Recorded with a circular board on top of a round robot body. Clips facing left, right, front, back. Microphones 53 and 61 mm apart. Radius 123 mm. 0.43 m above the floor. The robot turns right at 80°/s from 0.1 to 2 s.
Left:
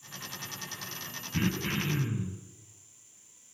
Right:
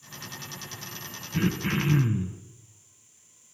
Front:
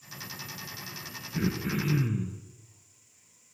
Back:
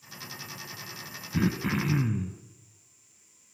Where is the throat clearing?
175° left, 2 m; by 2.4 s 130° right, 2 m.